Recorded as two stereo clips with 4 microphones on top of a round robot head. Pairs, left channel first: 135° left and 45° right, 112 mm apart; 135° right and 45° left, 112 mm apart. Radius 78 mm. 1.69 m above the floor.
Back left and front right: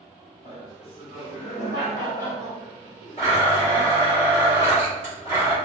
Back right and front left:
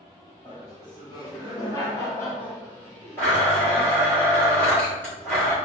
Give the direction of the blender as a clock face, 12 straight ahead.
7 o'clock.